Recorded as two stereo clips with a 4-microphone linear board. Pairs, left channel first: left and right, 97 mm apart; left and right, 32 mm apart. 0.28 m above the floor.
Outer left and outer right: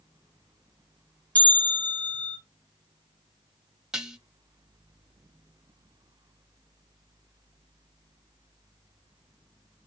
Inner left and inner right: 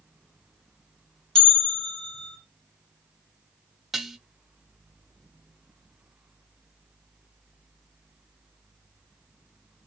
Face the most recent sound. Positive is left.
turn(degrees=-5)  # may be behind; listen again after turning